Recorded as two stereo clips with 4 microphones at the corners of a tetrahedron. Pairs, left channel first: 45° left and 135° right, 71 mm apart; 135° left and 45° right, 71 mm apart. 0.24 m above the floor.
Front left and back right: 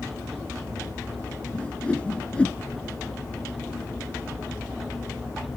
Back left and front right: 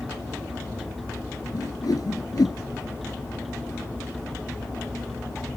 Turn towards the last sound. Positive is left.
turn(degrees=120)